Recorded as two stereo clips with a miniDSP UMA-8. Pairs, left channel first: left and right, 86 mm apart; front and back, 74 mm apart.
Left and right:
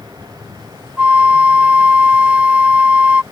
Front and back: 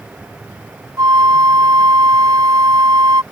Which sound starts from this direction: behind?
A flute, at 1.0 s.